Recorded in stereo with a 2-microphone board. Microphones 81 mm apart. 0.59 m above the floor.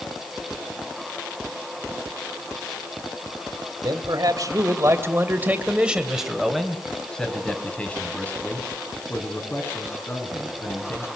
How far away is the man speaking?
About 2.5 m.